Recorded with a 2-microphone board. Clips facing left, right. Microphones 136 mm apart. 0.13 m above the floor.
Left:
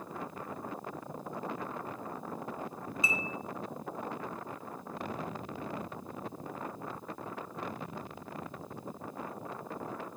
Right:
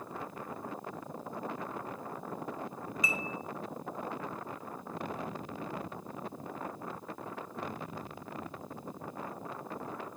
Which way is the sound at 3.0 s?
25° left (ahead or behind).